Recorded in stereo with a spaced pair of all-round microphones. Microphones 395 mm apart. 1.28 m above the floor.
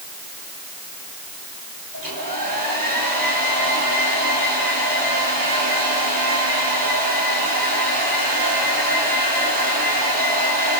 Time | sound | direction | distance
1.9 | a hair dryer | 55° right (ahead or behind) | 6 m